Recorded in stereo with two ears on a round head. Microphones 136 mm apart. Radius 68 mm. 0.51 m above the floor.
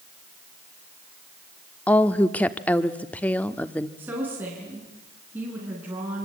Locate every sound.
1.9 s a woman speaking: 10° left (ahead or behind), 0.9 m
4.0 s a woman speaking: 10° right (ahead or behind), 5 m